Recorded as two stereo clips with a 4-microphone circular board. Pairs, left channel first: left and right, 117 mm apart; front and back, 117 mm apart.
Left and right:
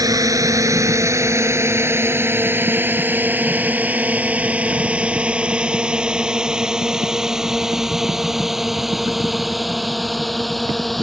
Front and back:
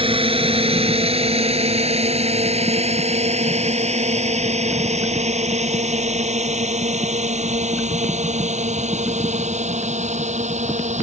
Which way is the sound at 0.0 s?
145° right.